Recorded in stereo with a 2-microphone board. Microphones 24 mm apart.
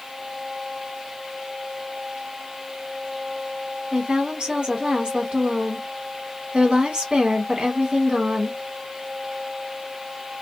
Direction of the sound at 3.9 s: 40° right (ahead or behind).